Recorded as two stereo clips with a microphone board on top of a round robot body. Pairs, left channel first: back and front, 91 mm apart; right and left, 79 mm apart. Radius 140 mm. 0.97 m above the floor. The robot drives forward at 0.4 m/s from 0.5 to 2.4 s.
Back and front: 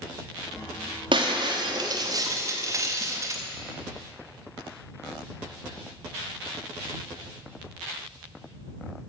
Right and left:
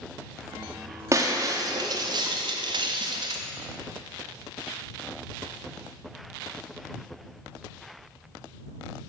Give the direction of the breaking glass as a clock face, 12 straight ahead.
11 o'clock.